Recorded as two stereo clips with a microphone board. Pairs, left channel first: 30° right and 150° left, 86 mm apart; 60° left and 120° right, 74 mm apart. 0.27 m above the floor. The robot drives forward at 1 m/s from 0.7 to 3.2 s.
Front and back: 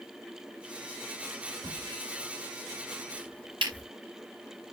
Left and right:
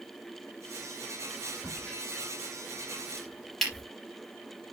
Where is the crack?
130° left, 4.5 m; by 3.9 s 140° left, 5.5 m.